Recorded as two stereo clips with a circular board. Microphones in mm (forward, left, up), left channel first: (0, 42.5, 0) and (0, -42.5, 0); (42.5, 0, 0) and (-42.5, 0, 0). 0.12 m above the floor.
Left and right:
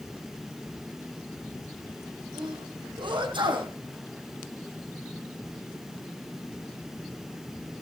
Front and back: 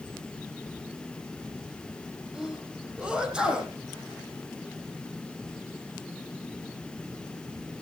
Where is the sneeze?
100° right, 6 m.